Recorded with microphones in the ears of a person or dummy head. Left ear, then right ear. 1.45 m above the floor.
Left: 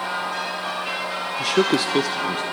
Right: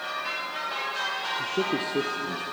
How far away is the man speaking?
About 0.6 m.